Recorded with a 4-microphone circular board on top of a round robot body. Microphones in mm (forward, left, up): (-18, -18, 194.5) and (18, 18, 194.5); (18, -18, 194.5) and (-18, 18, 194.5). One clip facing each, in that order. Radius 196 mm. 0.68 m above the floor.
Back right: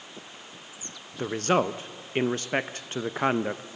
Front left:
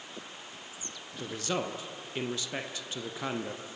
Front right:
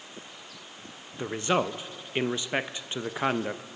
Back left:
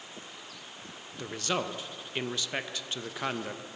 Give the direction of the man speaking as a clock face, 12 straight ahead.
4 o'clock.